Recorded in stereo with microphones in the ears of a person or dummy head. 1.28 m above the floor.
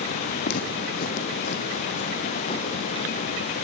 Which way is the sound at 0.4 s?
65° left (ahead or behind).